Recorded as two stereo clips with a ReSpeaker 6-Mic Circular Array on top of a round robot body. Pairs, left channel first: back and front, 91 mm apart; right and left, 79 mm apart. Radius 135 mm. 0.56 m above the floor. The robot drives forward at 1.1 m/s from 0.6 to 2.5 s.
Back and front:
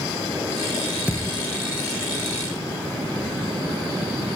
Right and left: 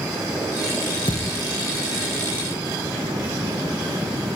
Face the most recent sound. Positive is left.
turn(degrees=-170)